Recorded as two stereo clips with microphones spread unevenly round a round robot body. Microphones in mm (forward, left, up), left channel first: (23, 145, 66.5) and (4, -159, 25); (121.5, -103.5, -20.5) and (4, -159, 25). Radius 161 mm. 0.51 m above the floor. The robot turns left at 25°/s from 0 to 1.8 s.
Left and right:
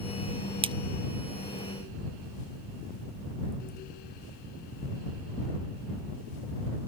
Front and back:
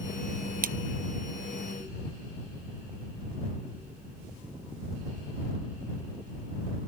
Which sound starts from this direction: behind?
A splash, at 0.6 s.